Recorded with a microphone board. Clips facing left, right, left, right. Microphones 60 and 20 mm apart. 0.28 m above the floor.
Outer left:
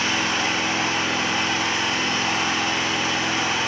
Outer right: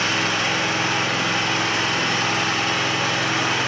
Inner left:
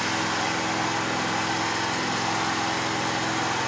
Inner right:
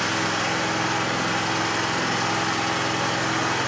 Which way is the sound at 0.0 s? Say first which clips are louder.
Outer right 1 dB, inner right 2 dB; 65° right (ahead or behind).